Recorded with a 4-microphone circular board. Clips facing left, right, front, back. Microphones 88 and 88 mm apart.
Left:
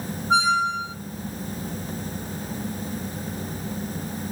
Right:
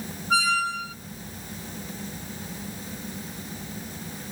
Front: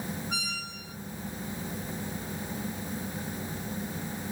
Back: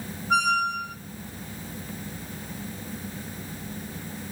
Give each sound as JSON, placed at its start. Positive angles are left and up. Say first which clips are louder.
{"t": 0.3, "sound": "a squeak", "louder": "left 4 dB, back 15 dB", "azimuth_deg": 155, "distance_m": 1.0}